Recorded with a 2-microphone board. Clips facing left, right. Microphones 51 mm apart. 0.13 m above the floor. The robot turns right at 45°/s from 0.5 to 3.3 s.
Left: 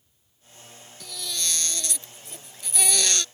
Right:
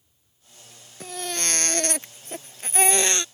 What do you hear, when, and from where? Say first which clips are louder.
1.0 s a baby crying: right 4 dB; 130° right; by 3.2 s 30° right